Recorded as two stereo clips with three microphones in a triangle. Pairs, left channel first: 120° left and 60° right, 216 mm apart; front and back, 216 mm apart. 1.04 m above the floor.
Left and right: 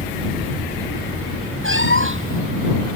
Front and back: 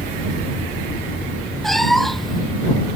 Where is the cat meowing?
90° right.